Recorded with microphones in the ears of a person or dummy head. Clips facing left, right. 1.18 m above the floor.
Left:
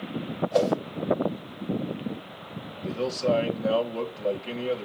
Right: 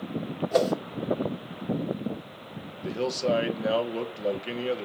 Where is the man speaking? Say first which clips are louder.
Left 1 dB; 10° right (ahead or behind), 1.1 m.